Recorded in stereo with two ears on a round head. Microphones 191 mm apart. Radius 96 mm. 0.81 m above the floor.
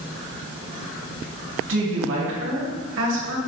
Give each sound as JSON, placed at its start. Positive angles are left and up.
{"t": 1.7, "sound": "a woman speaking", "side_deg": -65, "distance_m": 2.0}